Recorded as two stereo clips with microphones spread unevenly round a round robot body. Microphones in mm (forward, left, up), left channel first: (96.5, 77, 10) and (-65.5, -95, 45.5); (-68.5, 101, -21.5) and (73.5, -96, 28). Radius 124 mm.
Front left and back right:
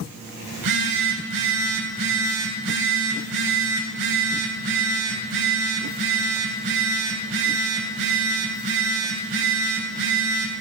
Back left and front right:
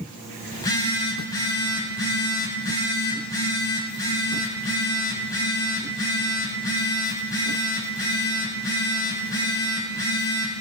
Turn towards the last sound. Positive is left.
turn(degrees=-155)